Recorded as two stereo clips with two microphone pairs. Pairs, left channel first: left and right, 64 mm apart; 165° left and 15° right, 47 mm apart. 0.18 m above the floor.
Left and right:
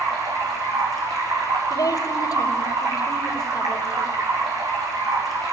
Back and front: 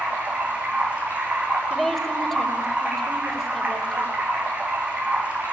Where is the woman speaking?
85° left, 4.5 m.